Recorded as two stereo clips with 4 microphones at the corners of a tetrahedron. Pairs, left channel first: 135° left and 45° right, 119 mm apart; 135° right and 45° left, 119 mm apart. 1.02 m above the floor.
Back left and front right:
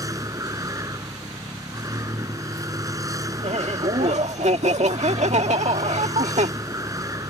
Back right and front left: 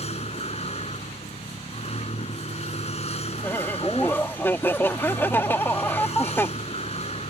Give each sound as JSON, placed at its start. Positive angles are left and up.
{"t": 0.0, "sound": "a vehicle", "azimuth_deg": -105}
{"t": 3.4, "sound": "laughter", "azimuth_deg": -65}